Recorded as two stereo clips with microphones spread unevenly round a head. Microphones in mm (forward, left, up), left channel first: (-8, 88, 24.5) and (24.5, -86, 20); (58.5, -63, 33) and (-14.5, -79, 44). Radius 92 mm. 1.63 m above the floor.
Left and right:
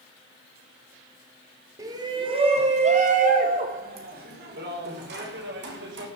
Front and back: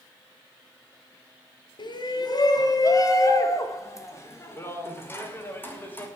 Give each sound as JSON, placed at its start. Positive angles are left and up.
{"t": 1.8, "sound": "a shout", "azimuth_deg": -5, "distance_m": 3.0}